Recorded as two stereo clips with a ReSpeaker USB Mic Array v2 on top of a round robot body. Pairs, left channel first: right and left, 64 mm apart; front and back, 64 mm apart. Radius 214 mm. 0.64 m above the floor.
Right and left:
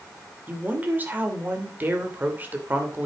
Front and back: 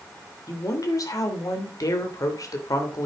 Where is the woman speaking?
30° left, 3 m.